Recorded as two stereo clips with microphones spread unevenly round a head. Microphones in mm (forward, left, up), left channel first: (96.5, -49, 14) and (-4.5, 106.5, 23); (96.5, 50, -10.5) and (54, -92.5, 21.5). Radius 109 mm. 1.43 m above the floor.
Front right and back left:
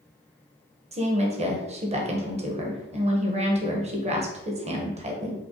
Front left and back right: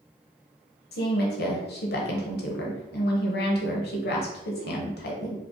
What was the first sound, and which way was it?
A woman speaking, 70° left.